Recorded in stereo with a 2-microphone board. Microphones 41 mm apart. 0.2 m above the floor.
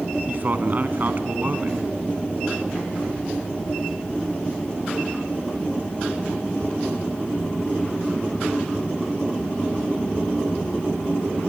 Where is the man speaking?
45° right (ahead or behind), 1.8 m.